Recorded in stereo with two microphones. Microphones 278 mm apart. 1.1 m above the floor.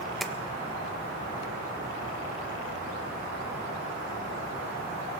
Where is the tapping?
Centre (ahead or behind), 1.4 m.